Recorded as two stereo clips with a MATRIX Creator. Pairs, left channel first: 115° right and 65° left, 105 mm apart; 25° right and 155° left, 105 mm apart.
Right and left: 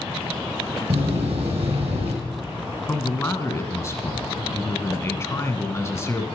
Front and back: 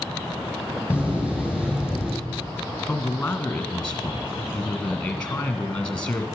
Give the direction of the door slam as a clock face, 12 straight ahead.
9 o'clock.